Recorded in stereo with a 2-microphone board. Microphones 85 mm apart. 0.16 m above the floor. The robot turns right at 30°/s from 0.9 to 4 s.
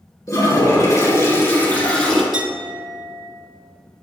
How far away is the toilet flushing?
About 1.9 m.